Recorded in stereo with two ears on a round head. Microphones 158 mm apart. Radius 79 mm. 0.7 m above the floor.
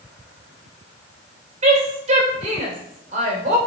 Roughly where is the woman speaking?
Right.